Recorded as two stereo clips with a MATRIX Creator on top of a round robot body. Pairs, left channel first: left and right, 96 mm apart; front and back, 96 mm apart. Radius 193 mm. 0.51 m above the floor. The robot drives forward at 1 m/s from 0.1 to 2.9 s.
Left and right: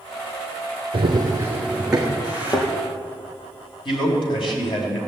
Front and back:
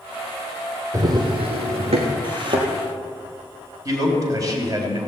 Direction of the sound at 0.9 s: 120° right.